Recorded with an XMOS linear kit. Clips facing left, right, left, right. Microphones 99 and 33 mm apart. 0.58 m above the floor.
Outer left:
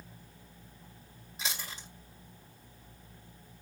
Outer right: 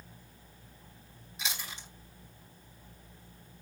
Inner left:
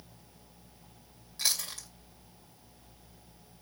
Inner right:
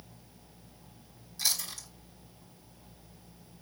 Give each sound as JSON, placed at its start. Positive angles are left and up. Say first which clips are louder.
{"t": 1.4, "sound": "chewing", "louder": "even, even", "side_deg": 40, "distance_m": 2.5}